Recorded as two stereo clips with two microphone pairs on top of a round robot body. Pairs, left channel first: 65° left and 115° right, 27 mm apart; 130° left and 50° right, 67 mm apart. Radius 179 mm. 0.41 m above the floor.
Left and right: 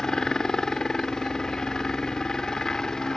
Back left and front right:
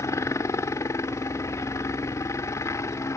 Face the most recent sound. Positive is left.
turn(degrees=110)